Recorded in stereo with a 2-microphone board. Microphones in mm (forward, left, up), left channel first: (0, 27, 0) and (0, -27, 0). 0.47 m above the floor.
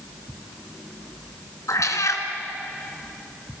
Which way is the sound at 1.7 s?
85° left.